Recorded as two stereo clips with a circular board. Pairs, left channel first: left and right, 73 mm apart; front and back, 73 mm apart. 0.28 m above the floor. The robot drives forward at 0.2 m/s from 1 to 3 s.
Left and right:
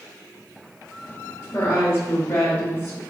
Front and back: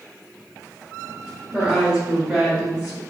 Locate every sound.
1.5 s a woman speaking: 110° left, 1.3 m; by 3.0 s 130° left, 1.4 m